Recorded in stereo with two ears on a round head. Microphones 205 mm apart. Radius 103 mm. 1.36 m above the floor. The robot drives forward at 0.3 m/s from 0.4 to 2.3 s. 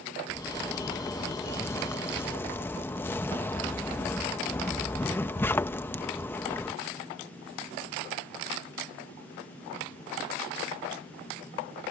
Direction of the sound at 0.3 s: 10° left (ahead or behind).